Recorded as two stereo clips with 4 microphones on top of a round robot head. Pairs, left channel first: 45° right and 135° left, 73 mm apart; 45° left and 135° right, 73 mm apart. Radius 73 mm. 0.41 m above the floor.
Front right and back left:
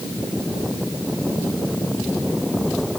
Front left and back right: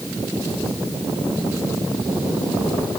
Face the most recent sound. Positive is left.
No sound to turn to.